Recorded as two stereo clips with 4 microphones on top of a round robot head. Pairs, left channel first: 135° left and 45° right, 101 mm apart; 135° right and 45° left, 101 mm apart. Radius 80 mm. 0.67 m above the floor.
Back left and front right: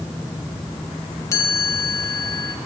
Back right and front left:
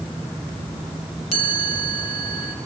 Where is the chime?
160° right, 4 m.